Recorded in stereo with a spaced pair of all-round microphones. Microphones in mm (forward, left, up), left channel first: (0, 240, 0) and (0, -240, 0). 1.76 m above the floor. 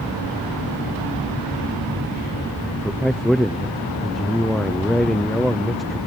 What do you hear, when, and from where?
2.6 s a man speaking: centre (ahead or behind), 0.8 m